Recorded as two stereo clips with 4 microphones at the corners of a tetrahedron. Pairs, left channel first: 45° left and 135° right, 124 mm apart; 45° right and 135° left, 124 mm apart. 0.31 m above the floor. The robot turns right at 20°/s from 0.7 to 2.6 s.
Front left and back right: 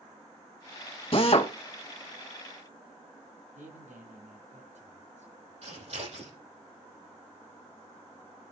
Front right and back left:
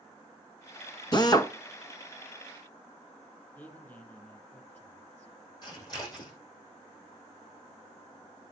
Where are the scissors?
100° right, 7 m.